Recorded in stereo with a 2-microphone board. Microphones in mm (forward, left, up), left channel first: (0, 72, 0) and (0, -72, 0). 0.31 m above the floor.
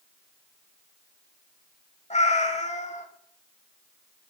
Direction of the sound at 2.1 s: 55° left (ahead or behind).